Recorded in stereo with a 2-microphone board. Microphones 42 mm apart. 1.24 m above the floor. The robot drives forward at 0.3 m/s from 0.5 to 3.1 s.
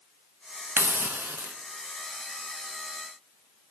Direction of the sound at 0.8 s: 60° right (ahead or behind).